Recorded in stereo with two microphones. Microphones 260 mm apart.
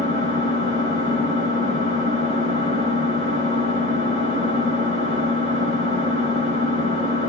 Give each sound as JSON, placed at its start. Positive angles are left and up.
{"t": 0.0, "sound": "an engine running", "side_deg": -60, "distance_m": 1.4}